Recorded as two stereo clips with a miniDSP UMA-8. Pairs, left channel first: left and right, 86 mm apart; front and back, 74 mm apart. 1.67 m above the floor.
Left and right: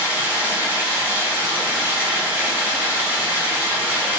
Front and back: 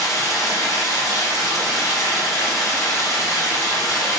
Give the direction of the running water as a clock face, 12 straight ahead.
1 o'clock.